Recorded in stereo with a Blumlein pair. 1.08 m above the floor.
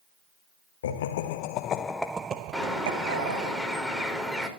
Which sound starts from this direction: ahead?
A bird, at 2.5 s.